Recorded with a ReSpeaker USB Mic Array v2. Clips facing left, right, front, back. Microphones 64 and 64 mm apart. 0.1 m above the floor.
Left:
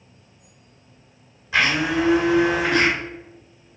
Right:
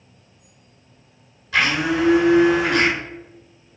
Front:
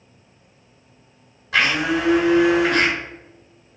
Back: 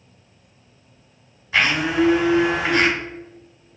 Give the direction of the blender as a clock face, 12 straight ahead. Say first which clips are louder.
Right 1 dB, even; 11 o'clock.